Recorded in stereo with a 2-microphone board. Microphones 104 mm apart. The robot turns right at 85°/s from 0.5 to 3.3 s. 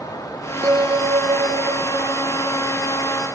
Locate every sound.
0.6 s a bell: 150° right, 1.3 m; by 2.6 s 20° left, 1.3 m